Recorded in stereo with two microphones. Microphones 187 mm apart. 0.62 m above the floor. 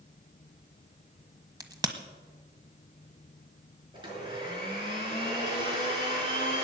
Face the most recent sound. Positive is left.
turn(degrees=-25)  # may be behind; listen again after turning